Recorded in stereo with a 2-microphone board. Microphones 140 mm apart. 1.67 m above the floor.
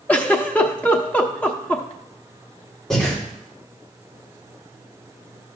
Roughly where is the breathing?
Centre.